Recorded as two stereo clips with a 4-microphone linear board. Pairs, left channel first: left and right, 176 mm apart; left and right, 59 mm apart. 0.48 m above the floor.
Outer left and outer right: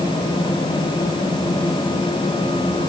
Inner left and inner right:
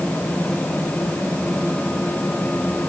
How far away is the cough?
No cough in this recording.